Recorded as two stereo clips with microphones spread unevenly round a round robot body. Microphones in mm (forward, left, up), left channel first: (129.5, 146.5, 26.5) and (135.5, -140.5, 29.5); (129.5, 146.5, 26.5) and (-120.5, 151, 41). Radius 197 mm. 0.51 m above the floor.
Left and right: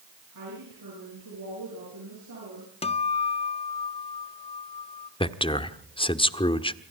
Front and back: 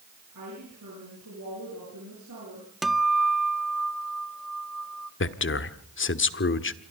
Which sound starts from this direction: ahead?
A man speaking, at 5.2 s.